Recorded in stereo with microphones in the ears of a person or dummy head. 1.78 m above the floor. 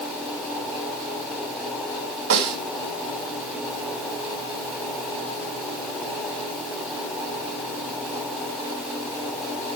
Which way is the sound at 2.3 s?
55° right (ahead or behind).